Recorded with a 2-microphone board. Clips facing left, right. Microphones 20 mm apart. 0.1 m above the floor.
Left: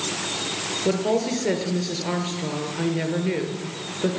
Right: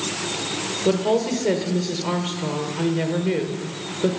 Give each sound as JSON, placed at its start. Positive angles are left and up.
{"t": 0.8, "sound": "a woman speaking", "side_deg": 5, "distance_m": 1.4}